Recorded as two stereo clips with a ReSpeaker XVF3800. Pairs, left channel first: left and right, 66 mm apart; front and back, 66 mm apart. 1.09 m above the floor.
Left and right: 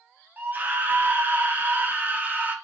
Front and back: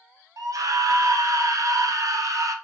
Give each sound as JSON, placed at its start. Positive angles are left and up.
{"t": 0.4, "sound": "a scream", "azimuth_deg": -150, "distance_m": 0.5}